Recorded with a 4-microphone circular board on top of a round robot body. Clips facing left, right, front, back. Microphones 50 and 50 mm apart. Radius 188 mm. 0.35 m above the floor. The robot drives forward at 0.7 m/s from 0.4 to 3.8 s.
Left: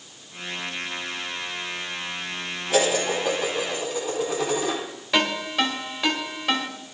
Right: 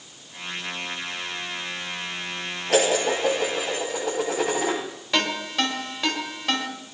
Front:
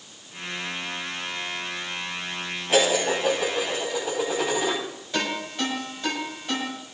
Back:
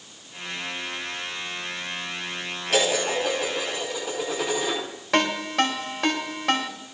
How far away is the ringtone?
About 3.5 m.